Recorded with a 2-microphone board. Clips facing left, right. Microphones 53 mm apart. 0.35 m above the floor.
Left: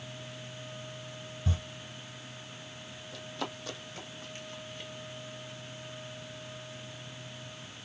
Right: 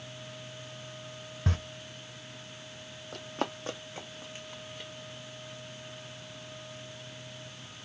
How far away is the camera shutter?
About 0.8 m.